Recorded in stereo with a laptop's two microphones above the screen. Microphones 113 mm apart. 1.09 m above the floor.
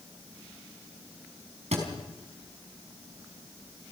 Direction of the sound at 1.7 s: 75° right (ahead or behind).